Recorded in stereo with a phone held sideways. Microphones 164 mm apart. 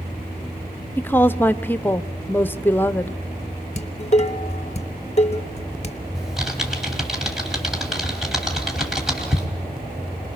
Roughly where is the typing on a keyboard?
Centre.